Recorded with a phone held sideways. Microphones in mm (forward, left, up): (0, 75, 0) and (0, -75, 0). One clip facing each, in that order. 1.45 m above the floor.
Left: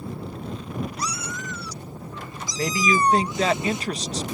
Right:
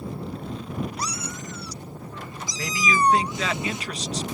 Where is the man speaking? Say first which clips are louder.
Left 2 dB; 40° left (ahead or behind).